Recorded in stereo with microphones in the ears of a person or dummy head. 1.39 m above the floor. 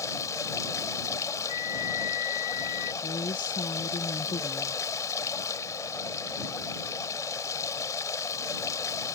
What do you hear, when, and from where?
0.0 s running water: 20° left (ahead or behind)
1.5 s a flute: 45° left (ahead or behind)
3.0 s a woman speaking: 30° left (ahead or behind)